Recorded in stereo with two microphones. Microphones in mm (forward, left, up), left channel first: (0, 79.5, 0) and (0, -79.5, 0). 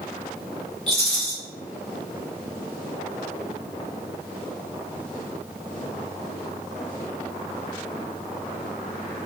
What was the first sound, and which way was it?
A rattle, 45° left (ahead or behind).